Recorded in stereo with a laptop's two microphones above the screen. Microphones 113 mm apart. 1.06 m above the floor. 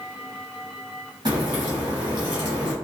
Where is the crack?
40° right (ahead or behind), 1.0 m.